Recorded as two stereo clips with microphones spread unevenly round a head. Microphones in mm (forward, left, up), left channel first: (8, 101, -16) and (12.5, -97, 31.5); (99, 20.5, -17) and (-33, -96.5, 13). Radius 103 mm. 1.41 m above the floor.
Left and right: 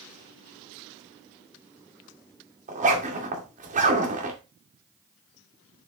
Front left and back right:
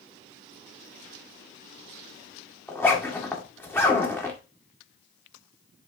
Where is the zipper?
40° right, 1.9 m.